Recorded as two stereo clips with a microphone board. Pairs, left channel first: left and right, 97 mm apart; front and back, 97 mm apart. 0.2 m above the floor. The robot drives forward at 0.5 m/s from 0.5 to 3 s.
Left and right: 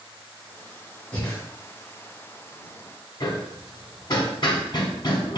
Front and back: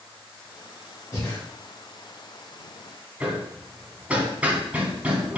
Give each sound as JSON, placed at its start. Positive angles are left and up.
{"t": 1.1, "sound": "breathing", "azimuth_deg": 25, "distance_m": 1.3}
{"t": 3.2, "sound": "hammering", "azimuth_deg": 110, "distance_m": 0.5}